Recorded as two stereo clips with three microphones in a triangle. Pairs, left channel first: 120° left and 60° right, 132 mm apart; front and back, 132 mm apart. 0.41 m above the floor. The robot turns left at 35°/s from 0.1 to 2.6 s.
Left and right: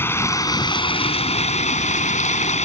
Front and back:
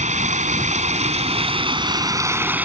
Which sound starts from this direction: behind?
Running water, at 0.0 s.